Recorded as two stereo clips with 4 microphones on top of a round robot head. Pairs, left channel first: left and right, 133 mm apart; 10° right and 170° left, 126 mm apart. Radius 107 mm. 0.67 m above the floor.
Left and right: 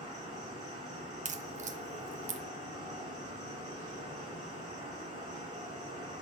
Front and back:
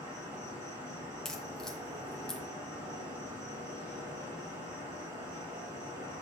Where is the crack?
95° right, 0.7 m.